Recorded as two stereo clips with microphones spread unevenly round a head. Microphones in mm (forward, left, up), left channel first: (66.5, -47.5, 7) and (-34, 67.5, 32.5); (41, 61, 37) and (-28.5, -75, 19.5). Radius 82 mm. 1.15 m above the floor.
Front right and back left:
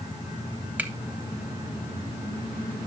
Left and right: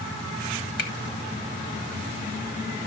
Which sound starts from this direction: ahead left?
A finger snap, at 0.8 s.